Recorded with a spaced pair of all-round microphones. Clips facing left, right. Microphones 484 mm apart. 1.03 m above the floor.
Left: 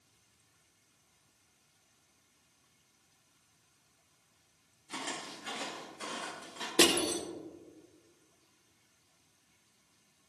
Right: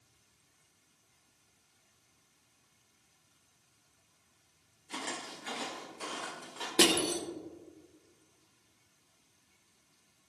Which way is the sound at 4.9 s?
25° left (ahead or behind).